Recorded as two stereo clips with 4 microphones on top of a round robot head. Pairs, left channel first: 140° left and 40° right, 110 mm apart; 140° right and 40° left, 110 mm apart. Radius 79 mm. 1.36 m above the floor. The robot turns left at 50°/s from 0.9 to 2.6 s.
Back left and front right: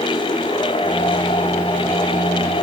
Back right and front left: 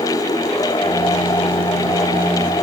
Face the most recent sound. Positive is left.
No sound to turn to.